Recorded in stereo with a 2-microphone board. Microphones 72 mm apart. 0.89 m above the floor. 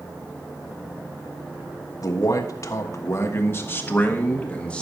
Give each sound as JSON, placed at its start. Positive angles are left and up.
{"t": 2.0, "sound": "a man speaking", "side_deg": 50, "distance_m": 1.4}